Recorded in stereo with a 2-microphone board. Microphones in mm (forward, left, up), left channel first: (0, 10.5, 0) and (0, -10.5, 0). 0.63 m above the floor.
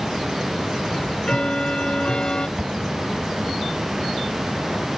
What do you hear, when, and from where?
0.9 s ticking: 40° left (ahead or behind)
2.6 s an explosion: 50° right (ahead or behind)